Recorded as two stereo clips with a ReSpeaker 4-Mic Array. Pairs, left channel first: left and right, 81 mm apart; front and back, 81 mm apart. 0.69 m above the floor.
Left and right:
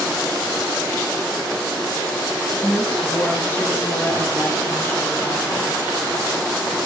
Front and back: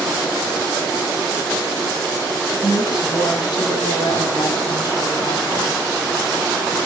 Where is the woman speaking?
20° left, 7 m.